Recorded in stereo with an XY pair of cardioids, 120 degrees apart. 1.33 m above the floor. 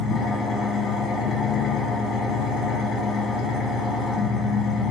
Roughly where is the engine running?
Ahead left.